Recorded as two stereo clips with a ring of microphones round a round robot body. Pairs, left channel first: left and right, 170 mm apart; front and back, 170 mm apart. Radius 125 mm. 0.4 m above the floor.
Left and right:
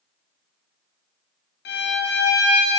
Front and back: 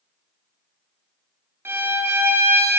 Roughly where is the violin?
Left.